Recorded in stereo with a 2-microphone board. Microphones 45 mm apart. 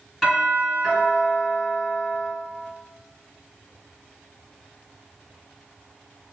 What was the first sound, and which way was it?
A doorbell, centre (ahead or behind).